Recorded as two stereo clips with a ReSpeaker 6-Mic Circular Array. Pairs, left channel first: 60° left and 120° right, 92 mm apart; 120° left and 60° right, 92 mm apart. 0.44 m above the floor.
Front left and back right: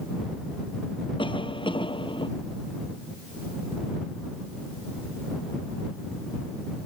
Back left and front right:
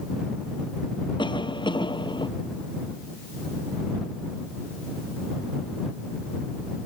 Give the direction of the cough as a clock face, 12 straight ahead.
9 o'clock.